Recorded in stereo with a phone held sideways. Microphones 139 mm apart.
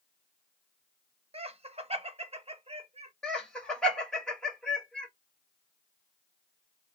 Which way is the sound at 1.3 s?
45° right (ahead or behind).